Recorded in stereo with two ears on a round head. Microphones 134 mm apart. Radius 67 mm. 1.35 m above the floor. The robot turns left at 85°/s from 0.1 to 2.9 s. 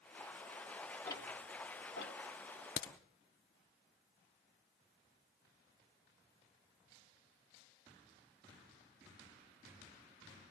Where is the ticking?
20° left (ahead or behind), 2 m; by 2.2 s 65° left (ahead or behind), 2 m.